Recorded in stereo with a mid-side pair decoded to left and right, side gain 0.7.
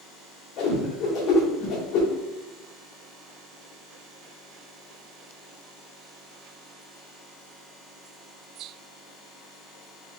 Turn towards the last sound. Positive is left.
turn(degrees=55)